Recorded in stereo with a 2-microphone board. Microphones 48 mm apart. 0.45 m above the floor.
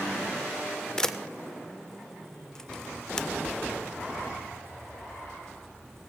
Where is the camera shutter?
10° left (ahead or behind), 0.6 m.